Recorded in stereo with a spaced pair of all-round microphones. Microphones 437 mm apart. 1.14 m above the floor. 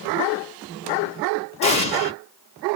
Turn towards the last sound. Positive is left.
turn(degrees=15)  # may be behind; listen again after turning